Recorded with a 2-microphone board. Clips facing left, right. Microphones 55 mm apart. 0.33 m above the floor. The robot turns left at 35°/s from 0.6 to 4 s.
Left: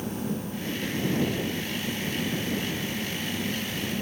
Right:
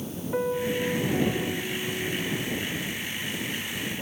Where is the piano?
65° right; by 2.5 s 130° right.